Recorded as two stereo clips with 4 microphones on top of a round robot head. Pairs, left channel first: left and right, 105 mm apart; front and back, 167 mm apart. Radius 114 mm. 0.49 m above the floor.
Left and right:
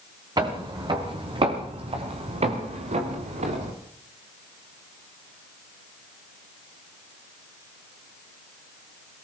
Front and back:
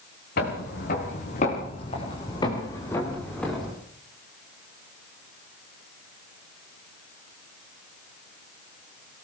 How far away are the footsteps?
About 5.5 m.